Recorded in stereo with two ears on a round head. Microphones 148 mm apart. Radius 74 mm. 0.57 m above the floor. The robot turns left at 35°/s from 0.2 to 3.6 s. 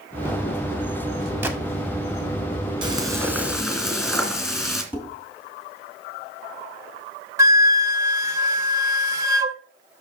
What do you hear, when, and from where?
1.4 s a gunshot: 15° right (ahead or behind), 1.1 m
2.8 s frying: 30° right (ahead or behind), 2 m; by 4.8 s centre (ahead or behind), 2 m
4.9 s dishes clattering: 10° right (ahead or behind), 3 m
7.4 s a flute: 20° right (ahead or behind), 0.6 m